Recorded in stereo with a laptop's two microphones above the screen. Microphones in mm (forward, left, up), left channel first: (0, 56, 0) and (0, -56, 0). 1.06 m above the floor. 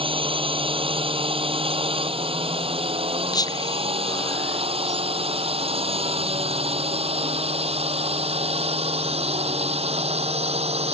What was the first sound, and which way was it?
A drone, 55° right (ahead or behind).